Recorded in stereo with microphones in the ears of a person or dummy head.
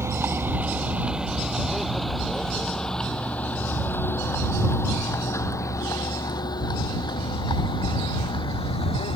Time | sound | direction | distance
0.0 | a vehicle | 15° right (ahead or behind) | ?